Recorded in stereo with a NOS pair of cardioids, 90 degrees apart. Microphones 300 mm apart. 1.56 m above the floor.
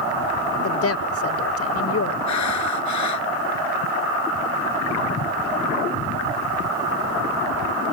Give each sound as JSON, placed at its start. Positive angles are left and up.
{"t": 0.6, "sound": "a woman speaking", "azimuth_deg": 50}
{"t": 2.3, "sound": "breathing", "azimuth_deg": 70}